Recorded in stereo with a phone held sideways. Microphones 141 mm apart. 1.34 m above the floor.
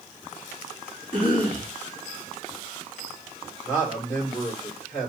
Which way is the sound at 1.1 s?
65° left (ahead or behind).